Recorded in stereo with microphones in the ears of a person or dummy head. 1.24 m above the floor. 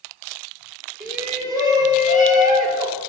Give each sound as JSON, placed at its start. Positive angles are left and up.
{"t": 1.0, "sound": "a shout", "side_deg": -20, "distance_m": 3.5}